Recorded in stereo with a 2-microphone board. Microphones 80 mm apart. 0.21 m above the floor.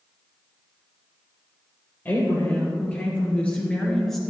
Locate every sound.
2.0 s a woman speaking: 25° left (ahead or behind), 4.5 m; by 4.2 s 5° left (ahead or behind), 2.5 m